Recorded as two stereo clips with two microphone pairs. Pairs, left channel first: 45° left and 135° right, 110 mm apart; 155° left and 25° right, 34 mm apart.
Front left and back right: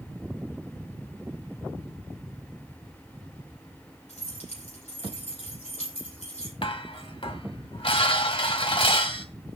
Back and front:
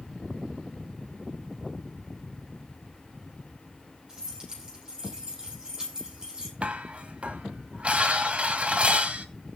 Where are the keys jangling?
45° left, 9 m.